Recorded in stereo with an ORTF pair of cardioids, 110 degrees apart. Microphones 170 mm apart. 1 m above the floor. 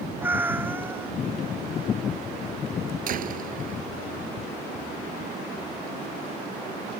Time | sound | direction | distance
0.2 | a cat meowing | 10° right | ?
3.1 | a door slam | 55° right | ?